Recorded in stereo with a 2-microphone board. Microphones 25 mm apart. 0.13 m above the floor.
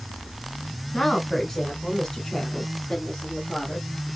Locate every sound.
0.9 s a woman speaking: 15° left (ahead or behind), 1.8 m